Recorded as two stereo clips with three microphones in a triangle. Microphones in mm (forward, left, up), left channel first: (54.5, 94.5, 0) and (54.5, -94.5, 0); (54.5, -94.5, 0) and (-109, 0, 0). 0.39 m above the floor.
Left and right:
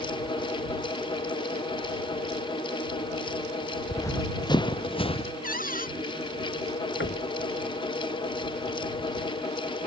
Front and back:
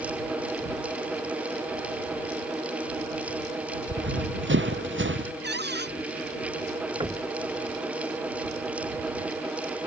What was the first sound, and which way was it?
Running footsteps, 165° left.